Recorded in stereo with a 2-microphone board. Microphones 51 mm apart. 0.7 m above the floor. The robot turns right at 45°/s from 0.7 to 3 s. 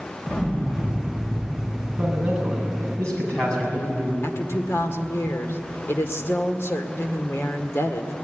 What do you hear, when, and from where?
0.3 s an explosion: 10° right, 4 m; by 1.9 s 45° left, 4 m
2.0 s a man speaking: 25° right, 7 m; by 4.1 s 20° left, 7 m
4.2 s a woman speaking: 60° left (ahead or behind), 2 m